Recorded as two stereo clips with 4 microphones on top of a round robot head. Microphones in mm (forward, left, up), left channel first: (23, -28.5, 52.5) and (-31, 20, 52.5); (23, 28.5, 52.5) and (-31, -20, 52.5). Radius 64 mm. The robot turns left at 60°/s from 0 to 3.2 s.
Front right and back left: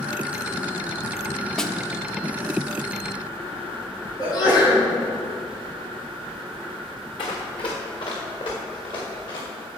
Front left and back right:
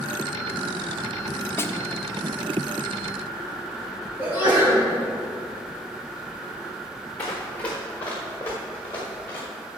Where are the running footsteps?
30° right, 3 m; by 9.4 s 25° right, 6 m.